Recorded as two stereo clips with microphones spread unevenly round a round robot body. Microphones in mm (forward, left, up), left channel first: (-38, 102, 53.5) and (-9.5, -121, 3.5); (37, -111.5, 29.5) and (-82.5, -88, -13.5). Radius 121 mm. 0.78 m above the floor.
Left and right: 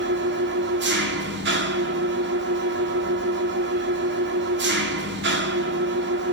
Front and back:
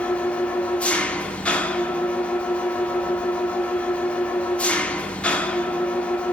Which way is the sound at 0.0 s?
100° right.